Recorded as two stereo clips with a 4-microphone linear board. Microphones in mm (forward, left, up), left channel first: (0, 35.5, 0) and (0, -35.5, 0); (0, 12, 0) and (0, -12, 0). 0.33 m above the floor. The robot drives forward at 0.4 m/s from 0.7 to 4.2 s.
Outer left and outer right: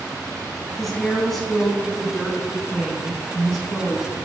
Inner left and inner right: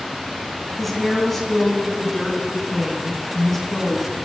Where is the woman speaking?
5° left (ahead or behind), 3.5 m; by 4.2 s centre (ahead or behind), 4.5 m.